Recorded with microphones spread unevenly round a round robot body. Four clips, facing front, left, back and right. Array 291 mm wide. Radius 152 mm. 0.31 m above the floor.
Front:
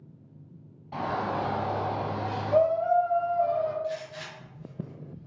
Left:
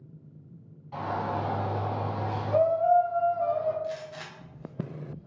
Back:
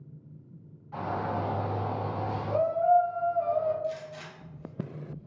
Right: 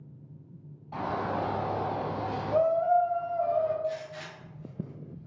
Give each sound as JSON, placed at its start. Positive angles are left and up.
{"t": 0.9, "sound": "a shout", "azimuth_deg": -35, "distance_m": 1.8}
{"t": 3.8, "sound": "a gunshot", "azimuth_deg": 135, "distance_m": 0.8}